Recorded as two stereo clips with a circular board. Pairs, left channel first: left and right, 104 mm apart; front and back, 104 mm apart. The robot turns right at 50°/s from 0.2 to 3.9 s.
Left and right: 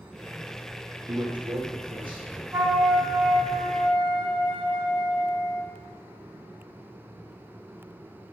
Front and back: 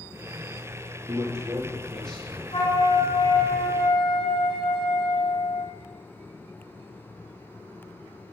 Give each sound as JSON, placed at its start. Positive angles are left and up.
{"t": 1.1, "sound": "a man speaking", "azimuth_deg": -135, "distance_m": 3.0}
{"t": 2.5, "sound": "a flute", "azimuth_deg": -20, "distance_m": 3.5}